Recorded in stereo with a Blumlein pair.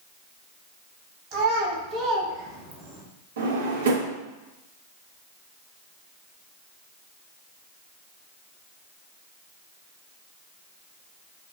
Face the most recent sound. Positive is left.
turn(degrees=-60)